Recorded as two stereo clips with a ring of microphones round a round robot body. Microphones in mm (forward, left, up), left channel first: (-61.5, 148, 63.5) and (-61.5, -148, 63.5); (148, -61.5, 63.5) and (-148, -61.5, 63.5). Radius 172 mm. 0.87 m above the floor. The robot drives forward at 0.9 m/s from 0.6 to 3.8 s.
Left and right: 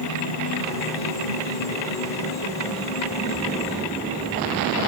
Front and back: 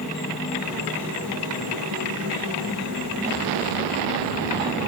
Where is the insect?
90° left, 4.5 m; by 4.9 s 125° left, 5 m.